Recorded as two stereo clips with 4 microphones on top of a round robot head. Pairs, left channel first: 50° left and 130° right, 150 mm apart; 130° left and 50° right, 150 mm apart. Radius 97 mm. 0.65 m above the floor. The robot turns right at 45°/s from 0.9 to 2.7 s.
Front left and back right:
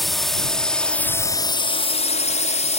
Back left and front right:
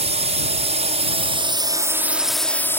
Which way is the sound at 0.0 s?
45° right.